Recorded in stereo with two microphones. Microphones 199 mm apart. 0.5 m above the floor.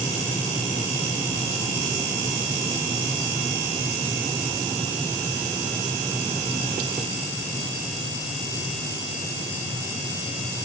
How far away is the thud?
I don't hear a thud.